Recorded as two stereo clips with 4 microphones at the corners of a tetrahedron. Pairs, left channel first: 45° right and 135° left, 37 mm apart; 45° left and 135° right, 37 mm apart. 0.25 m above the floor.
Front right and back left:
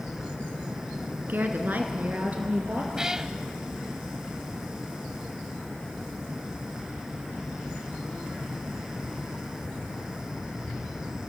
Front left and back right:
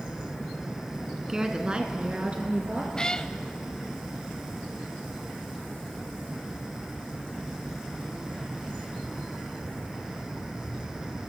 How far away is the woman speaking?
About 2 m.